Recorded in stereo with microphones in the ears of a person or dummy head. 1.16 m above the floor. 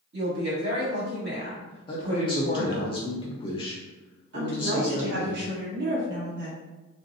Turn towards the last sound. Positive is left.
turn(degrees=-70)  # may be behind; listen again after turning